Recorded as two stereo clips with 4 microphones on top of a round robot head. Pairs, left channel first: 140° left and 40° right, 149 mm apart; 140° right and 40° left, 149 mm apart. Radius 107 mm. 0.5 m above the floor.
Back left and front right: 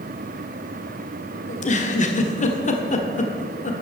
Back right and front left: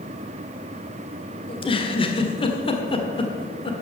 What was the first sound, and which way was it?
A giggle, 170° left.